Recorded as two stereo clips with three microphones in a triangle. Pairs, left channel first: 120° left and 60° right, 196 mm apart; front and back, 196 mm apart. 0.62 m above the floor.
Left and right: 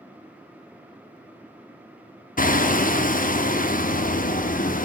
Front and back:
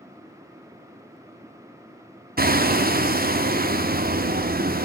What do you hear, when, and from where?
2.4 s hammering: 155° left, 0.7 m